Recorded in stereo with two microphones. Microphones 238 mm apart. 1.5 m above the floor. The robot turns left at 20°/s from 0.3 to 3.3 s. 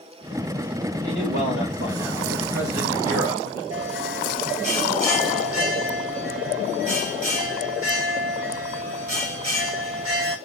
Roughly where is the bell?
Right.